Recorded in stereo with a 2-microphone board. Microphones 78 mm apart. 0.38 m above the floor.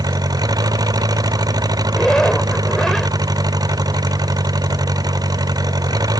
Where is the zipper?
10° left (ahead or behind).